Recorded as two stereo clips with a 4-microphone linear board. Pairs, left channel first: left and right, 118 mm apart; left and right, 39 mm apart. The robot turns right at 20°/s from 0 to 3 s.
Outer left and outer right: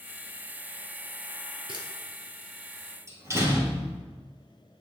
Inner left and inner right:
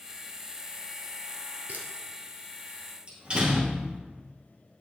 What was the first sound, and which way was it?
A camera shutter, 50° right (ahead or behind).